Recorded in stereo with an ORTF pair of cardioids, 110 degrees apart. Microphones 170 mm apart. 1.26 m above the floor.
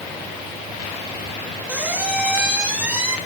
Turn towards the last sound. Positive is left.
turn(degrees=-10)